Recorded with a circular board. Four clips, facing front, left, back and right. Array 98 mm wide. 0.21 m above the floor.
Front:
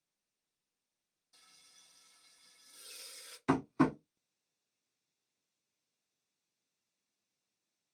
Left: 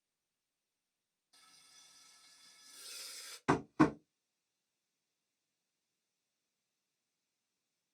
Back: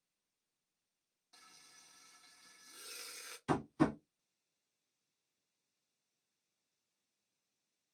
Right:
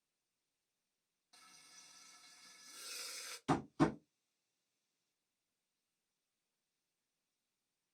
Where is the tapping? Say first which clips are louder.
Left 4 dB, front 3 dB; 50° left, 0.8 m.